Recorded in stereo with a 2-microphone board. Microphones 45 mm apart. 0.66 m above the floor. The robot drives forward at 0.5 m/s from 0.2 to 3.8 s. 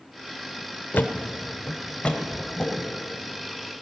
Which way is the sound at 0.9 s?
45° left (ahead or behind).